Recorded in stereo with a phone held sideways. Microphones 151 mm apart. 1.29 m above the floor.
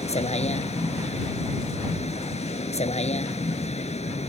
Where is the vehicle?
45° left (ahead or behind).